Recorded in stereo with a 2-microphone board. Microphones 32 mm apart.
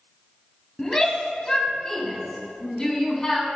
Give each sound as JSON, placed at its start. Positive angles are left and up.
{"t": 0.8, "sound": "a shout", "side_deg": 20, "distance_m": 1.4}